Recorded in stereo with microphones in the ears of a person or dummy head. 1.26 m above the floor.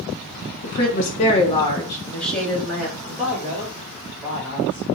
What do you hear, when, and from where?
0.6 s a woman speaking: 60° left (ahead or behind), 1.1 m; by 3.0 s 5° right (ahead or behind), 1.4 m
3.1 s a man speaking: 5° right (ahead or behind), 1.4 m